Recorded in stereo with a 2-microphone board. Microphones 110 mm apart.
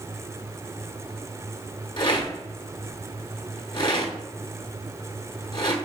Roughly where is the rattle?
Left.